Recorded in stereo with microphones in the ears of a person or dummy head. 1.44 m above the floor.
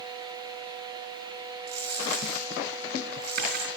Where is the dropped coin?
60° right (ahead or behind), 4.5 m.